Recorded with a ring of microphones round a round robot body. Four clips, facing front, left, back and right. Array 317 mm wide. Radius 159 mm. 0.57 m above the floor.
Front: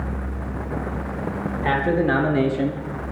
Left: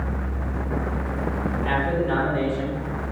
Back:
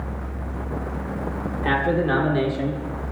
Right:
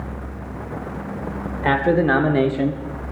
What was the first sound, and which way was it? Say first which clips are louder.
A man speaking: right 8 dB, front 1 dB; 85° right.